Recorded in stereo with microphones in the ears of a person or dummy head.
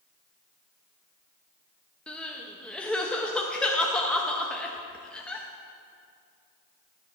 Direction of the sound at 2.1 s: 5° left (ahead or behind).